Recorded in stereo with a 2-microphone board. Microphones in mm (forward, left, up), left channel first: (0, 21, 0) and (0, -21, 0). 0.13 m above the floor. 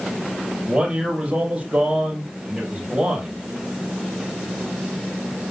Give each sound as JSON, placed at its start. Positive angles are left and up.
{"t": 0.7, "sound": "a man speaking", "side_deg": -25, "distance_m": 5.5}